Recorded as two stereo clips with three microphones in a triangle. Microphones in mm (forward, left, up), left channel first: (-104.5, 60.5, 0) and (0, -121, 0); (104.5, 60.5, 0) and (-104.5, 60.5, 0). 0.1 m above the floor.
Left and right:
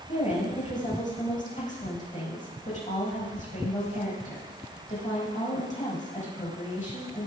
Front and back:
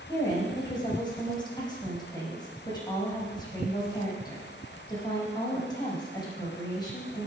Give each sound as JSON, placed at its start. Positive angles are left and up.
{"t": 0.1, "sound": "a woman speaking", "azimuth_deg": 70, "distance_m": 6.0}